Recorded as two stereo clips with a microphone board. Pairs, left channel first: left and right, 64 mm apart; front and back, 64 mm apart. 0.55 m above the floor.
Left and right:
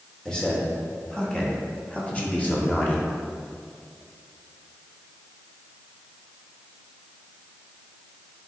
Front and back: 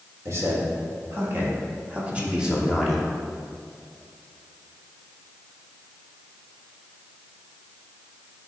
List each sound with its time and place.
0.2 s a man speaking: 165° left, 2 m; by 3.1 s 90° left, 1.4 m